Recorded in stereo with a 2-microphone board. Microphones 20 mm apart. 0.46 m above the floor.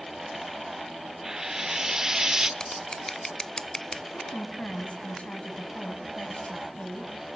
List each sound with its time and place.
1.2 s frying: 25° right (ahead or behind), 1.0 m
2.6 s scissors: 35° left (ahead or behind), 0.7 m
4.1 s a woman speaking: 70° left (ahead or behind), 3.5 m